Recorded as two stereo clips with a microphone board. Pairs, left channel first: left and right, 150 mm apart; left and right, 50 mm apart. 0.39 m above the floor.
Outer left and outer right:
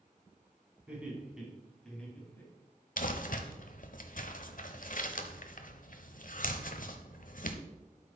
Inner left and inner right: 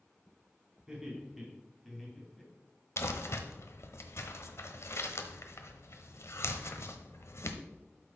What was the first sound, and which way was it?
Laughter, 10° right (ahead or behind).